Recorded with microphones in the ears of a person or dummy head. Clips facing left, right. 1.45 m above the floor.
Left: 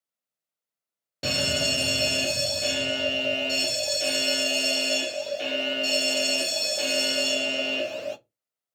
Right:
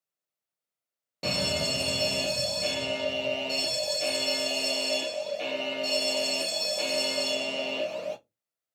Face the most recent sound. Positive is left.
turn(degrees=10)  # may be behind; listen again after turning